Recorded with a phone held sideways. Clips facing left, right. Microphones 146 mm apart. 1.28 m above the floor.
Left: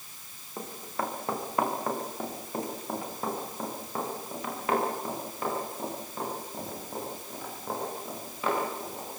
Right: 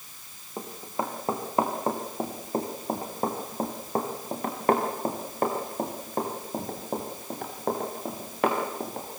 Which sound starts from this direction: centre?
Running footsteps, at 0.6 s.